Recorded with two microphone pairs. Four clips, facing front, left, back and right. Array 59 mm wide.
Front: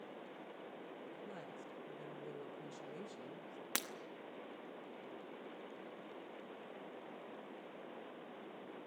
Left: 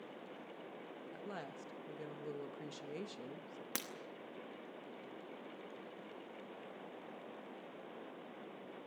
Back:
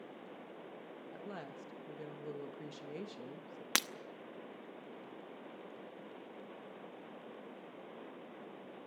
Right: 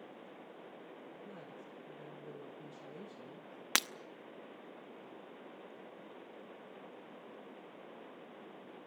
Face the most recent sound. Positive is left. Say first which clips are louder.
# right 12 dB, back 7 dB
turn(degrees=-110)